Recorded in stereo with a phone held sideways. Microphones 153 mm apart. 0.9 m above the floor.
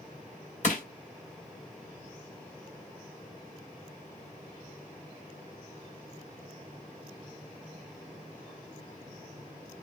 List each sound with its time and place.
0.6 s crushing: 55° left (ahead or behind), 3 m